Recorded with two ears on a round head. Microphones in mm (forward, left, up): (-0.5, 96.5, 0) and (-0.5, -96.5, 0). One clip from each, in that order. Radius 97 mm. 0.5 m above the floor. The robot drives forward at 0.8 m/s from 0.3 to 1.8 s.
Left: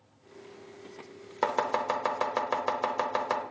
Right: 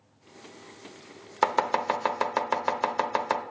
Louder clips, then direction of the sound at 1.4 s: Right 3 dB; 30° right (ahead or behind).